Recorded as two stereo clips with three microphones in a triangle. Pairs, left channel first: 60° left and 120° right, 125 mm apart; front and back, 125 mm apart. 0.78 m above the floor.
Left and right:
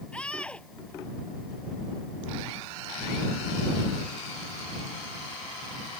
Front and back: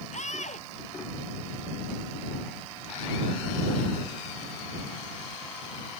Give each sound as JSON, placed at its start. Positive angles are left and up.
{"t": 0.1, "sound": "a scream", "azimuth_deg": -20}